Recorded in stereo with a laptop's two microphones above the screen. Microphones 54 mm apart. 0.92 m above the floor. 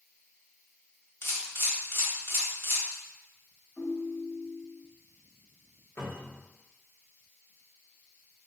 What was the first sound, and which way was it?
A camera shutter, 50° left (ahead or behind).